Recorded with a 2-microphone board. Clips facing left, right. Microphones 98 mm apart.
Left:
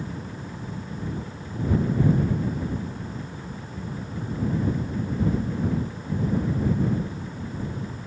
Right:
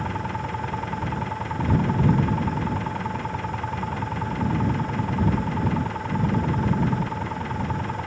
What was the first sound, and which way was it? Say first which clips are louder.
An engine running: right 7 dB; 80° right.